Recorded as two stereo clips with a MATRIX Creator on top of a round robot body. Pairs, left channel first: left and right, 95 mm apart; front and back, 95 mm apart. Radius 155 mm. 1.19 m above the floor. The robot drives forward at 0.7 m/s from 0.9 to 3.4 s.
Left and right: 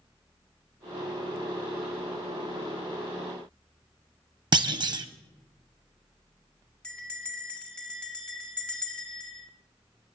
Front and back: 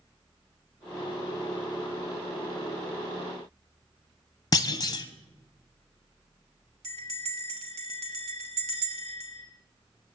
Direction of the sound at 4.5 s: 50° right.